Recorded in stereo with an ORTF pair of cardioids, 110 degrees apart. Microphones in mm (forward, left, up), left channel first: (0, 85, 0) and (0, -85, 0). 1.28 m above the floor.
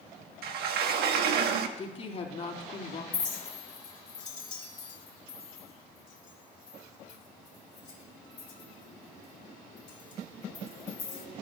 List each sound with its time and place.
0.4 s a sliding door: 70° right, 1.6 m
1.8 s a woman speaking: 35° left, 3.5 m
3.1 s a clink: 45° left, 3.5 m